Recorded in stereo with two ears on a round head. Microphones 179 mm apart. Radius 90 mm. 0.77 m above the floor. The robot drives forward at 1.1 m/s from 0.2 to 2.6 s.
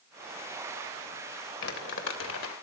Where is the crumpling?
55° left (ahead or behind), 2.5 m; by 2.5 s 75° left (ahead or behind), 2.5 m.